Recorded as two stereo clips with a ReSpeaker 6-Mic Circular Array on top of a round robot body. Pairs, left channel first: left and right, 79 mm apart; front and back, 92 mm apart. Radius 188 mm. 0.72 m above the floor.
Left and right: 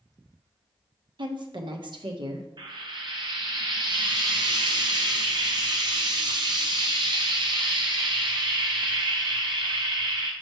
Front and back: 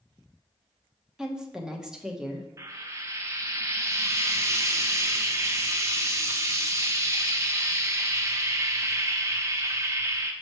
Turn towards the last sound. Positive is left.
turn(degrees=-120)